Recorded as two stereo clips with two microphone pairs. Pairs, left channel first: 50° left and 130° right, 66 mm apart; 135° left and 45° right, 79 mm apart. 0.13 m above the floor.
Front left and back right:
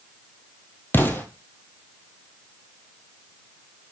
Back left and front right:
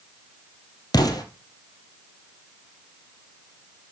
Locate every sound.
0.9 s an explosion: 105° left, 2 m